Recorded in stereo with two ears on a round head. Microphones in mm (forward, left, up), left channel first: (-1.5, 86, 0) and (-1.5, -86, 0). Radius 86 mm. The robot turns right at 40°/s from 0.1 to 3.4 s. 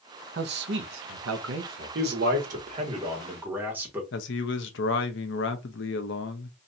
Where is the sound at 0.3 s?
125° right, 0.9 m; by 2.0 s 60° right, 0.9 m.